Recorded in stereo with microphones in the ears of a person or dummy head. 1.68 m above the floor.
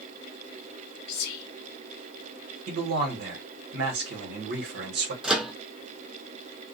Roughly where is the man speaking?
Right.